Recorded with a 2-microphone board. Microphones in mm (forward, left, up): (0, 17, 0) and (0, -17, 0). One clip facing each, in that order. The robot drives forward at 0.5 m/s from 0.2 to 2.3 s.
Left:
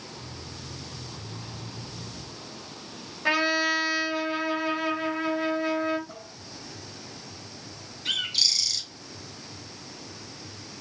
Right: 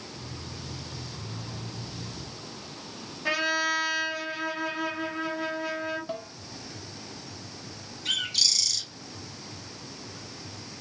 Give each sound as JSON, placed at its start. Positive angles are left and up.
{"t": 3.2, "sound": "a trumpet", "side_deg": 30, "distance_m": 4.0}
{"t": 6.1, "sound": "a snare drum", "side_deg": -45, "distance_m": 5.0}
{"t": 8.1, "sound": "a bird", "side_deg": 20, "distance_m": 3.0}